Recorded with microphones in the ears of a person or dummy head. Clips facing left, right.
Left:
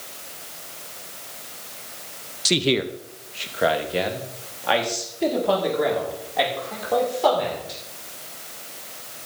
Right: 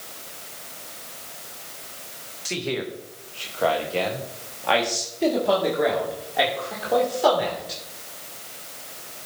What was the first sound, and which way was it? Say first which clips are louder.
A man speaking: left 6 dB; 45° left (ahead or behind).